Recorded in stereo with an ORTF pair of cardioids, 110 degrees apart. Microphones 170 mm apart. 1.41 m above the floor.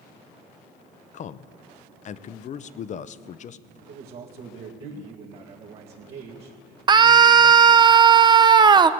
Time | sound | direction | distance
1.1 | a man speaking | 45° left | 0.6 m
3.9 | a man speaking | 70° right | 2.0 m
6.9 | a scream | 25° right | 0.7 m